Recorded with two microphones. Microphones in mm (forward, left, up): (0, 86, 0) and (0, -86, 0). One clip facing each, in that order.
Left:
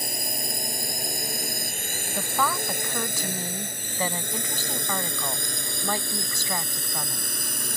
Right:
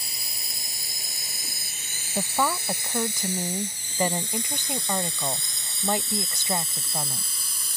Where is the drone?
55° left (ahead or behind); by 7.8 s 65° left (ahead or behind).